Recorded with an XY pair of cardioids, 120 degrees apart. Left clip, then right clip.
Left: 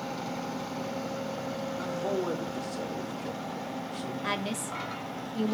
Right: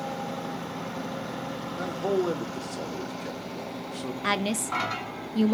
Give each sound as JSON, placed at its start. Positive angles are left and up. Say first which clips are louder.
{"t": 1.8, "sound": "a man speaking", "louder": "right 5 dB", "azimuth_deg": -20, "distance_m": 1.1}
{"t": 4.2, "sound": "a woman speaking", "louder": "right 6 dB", "azimuth_deg": -35, "distance_m": 0.5}